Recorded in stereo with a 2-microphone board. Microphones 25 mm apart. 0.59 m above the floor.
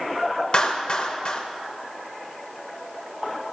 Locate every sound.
0.5 s a clap: 45° left (ahead or behind), 1.6 m